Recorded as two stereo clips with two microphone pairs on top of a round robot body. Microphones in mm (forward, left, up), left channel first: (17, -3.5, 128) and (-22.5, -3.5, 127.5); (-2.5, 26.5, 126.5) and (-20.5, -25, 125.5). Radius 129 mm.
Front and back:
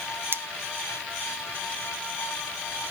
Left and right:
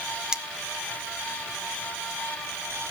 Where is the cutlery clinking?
175° left, 0.9 m.